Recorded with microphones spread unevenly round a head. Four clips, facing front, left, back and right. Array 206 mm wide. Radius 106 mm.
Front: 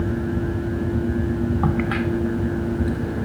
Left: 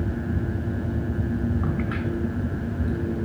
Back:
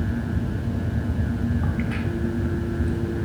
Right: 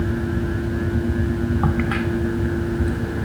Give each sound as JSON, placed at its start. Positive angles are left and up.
{"t": 1.6, "sound": "a crack", "azimuth_deg": -55, "distance_m": 1.0}